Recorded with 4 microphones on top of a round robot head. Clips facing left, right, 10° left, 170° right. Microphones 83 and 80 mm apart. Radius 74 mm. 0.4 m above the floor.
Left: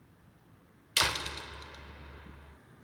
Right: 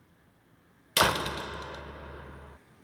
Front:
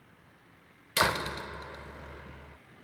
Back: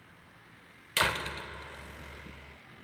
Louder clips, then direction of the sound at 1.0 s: Right 8 dB, front 3 dB; 60° right.